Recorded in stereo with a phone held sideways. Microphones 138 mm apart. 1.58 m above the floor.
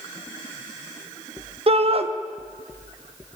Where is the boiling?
No boiling in this recording.